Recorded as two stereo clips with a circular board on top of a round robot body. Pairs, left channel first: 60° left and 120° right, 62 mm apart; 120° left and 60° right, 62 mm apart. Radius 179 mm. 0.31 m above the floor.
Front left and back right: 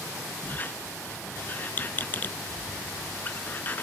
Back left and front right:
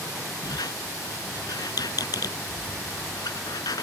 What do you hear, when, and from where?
0.4 s a squeak: 120° left